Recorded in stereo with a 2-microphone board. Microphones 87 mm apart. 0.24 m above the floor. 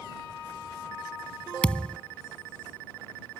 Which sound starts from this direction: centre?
A thud, at 1.6 s.